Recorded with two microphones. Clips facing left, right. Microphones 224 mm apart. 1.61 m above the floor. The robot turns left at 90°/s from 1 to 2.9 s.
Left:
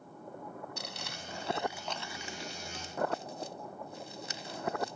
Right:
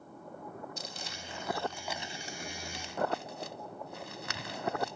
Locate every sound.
0.8 s crumpling: 75° left (ahead or behind); by 5.0 s 80° right